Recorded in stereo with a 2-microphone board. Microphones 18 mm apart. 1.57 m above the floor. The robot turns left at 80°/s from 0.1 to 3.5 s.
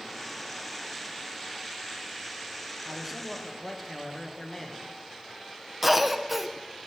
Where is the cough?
10° right (ahead or behind), 0.8 m.